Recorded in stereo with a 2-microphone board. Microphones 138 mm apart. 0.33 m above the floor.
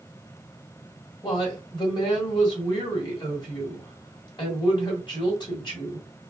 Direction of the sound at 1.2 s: 35° left (ahead or behind).